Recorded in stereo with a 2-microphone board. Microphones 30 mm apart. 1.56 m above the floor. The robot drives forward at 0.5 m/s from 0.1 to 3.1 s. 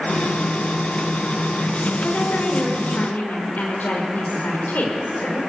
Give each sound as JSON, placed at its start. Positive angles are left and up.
{"t": 2.0, "sound": "a woman speaking", "side_deg": 65, "distance_m": 6.0}